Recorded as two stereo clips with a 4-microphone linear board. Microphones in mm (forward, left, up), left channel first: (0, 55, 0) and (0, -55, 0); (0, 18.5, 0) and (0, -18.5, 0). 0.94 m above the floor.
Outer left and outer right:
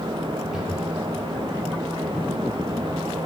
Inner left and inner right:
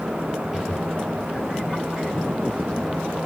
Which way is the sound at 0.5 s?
5° right (ahead or behind).